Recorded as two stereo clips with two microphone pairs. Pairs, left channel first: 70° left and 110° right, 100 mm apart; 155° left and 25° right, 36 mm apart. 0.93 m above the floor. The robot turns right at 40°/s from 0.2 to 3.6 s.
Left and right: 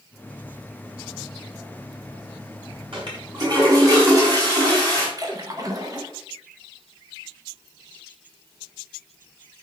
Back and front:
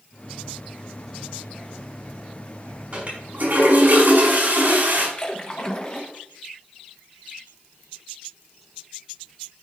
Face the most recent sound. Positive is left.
turn(degrees=-150)